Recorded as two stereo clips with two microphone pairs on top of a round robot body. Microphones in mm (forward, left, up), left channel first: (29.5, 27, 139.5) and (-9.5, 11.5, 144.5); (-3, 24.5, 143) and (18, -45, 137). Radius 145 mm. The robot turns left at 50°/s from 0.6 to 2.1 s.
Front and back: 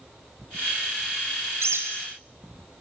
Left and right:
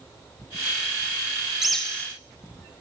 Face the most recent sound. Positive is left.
turn(degrees=180)